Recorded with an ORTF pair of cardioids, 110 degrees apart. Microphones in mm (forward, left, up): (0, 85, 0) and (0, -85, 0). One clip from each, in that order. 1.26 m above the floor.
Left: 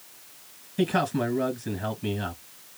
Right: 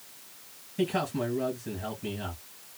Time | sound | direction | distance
0.8 | a man speaking | 35° left | 2.5 m